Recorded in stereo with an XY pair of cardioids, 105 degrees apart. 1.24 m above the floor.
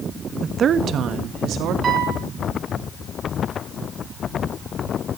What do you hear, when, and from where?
0.4 s a woman speaking: 35° right, 0.8 m; by 1.7 s 80° right, 2.5 m
1.8 s a piano: 50° right, 3 m